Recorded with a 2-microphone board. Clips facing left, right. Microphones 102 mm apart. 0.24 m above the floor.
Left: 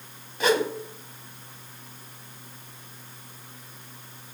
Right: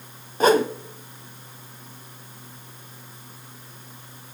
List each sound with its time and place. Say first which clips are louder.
0.4 s a whoosh: right 5 dB; 40° right (ahead or behind), 0.9 m